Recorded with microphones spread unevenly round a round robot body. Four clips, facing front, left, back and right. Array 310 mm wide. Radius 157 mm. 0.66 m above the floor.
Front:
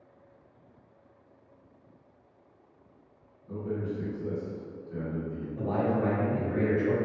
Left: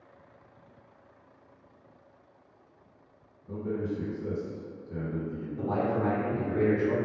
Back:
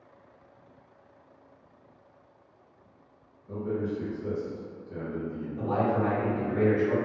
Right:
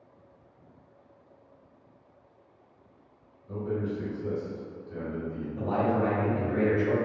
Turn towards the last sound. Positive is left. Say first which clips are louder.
# right 2 dB, back 1 dB
turn(degrees=-80)